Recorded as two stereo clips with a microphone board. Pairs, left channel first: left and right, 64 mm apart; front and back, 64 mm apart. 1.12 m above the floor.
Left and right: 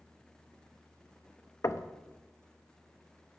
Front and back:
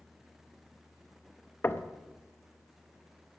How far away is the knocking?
About 0.7 m.